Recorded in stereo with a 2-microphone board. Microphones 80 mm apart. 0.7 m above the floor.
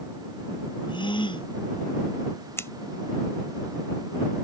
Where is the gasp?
80° left.